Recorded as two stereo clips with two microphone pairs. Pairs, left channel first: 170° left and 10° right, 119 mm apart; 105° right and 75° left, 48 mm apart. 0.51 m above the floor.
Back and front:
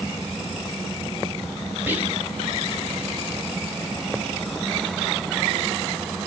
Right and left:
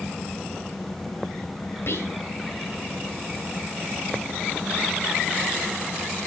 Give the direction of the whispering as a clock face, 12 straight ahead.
3 o'clock.